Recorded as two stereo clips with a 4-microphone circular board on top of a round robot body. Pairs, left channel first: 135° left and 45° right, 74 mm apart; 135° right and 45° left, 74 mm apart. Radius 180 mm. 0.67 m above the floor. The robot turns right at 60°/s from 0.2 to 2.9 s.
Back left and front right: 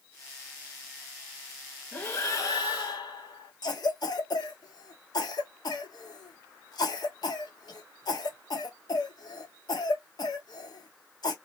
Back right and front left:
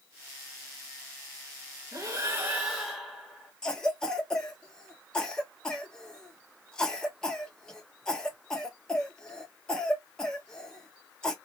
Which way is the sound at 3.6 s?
145° left.